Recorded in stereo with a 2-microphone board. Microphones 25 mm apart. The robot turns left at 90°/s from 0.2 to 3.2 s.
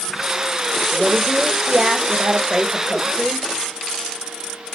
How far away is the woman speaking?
About 1.2 m.